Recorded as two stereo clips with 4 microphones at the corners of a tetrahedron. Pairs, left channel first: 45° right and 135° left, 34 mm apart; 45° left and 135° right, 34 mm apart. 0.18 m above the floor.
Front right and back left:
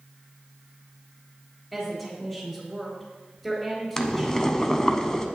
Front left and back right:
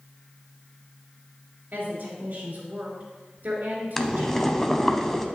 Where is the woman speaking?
130° right, 2.5 m.